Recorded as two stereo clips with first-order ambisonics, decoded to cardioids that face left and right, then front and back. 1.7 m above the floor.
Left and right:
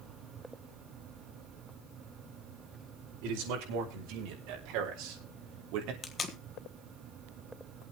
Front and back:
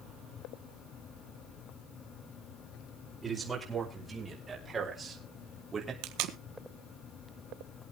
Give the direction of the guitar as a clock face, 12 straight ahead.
I don't hear a guitar.